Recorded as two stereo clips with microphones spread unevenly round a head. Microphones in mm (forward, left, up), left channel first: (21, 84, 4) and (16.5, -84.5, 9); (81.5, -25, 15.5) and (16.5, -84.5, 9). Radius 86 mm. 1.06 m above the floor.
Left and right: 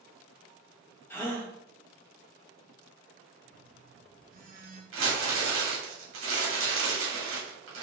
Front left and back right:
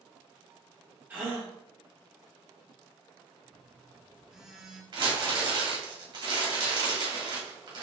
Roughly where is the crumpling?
Right.